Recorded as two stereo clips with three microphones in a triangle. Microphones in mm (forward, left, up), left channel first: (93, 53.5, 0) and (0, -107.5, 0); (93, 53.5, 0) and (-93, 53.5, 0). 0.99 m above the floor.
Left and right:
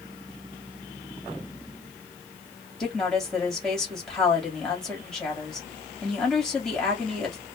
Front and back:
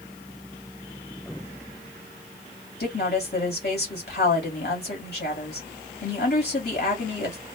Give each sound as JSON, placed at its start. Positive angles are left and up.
{"t": 2.8, "sound": "a woman speaking", "azimuth_deg": -25, "distance_m": 2.0}